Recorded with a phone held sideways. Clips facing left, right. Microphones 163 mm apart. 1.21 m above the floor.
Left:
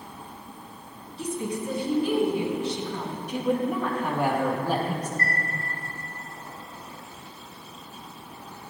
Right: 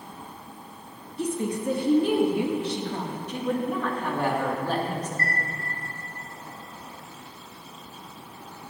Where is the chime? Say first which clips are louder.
Even; 35° right (ahead or behind), 2 m.